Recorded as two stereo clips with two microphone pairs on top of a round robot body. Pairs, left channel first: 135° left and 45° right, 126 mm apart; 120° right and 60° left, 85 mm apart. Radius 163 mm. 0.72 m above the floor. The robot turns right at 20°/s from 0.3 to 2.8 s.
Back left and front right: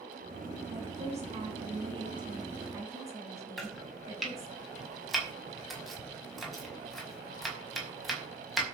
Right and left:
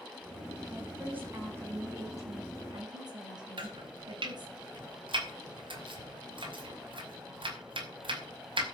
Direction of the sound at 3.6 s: 45° left.